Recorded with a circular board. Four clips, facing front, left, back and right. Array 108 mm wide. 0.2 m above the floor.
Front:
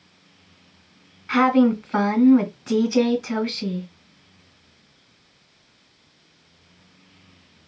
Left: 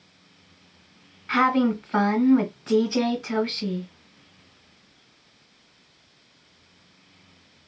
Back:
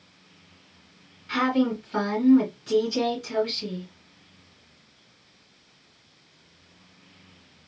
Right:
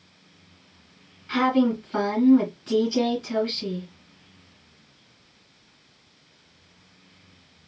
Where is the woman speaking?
35° left, 2 m.